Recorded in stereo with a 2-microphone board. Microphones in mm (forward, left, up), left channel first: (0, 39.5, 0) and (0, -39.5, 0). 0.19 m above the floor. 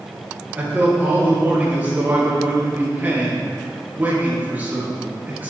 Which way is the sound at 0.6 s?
20° right (ahead or behind).